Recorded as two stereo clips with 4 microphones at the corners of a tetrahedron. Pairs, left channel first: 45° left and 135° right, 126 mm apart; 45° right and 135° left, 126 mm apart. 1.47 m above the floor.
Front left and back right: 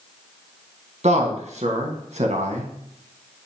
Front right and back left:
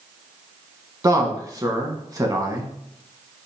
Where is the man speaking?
165° right, 1.5 m.